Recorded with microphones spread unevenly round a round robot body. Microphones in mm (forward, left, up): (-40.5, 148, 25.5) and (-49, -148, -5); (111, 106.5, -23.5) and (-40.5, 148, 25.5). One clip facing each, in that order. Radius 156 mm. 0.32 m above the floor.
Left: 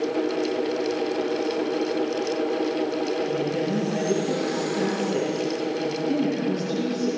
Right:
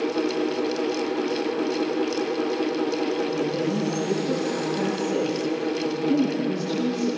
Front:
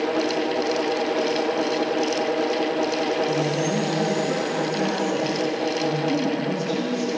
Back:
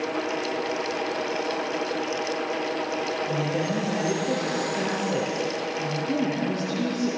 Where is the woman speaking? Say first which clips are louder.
Even, front 4 dB; 160° left, 8 m.